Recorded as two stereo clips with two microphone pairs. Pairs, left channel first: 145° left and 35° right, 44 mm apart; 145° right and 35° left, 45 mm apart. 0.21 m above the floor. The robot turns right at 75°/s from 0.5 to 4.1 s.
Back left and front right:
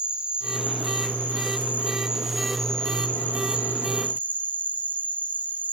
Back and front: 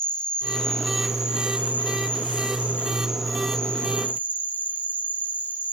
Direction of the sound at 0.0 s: 90° right.